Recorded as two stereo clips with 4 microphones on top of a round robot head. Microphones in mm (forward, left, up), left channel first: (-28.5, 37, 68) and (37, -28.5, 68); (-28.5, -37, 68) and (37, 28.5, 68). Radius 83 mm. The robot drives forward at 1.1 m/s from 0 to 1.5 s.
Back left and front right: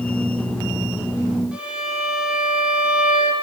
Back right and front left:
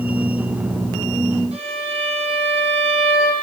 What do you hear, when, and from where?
1.5 s a violin: 35° left, 8 m